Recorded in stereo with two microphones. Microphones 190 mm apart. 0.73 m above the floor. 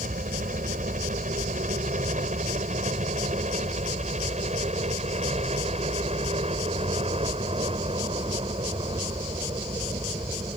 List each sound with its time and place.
0.0 s a helicopter: 45° right (ahead or behind); by 10.6 s 25° right (ahead or behind)